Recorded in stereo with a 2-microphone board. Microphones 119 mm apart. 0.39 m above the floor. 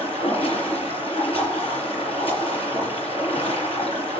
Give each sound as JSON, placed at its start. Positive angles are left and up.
{"t": 0.0, "sound": "running water", "side_deg": 50, "distance_m": 6.5}